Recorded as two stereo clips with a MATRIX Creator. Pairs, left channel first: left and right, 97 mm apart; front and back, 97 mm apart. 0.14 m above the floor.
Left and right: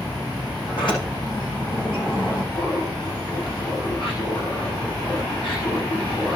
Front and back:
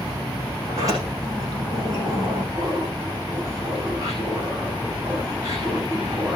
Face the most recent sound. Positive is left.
turn(degrees=125)